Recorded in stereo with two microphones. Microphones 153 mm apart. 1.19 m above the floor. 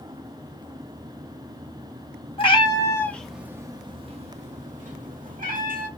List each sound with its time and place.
2.4 s a cat meowing: 40° left (ahead or behind), 0.8 m; by 5.9 s 75° right (ahead or behind), 1.5 m